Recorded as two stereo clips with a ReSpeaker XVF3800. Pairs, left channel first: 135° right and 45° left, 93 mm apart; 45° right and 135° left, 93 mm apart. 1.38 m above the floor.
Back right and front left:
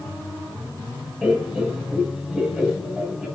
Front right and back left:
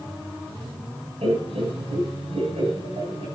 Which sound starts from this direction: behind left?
Laughter, at 1.2 s.